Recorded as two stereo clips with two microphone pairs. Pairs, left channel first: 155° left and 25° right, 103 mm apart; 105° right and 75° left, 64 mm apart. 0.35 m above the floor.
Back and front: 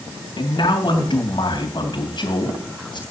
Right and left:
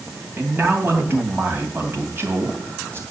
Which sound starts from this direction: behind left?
A man speaking, at 0.4 s.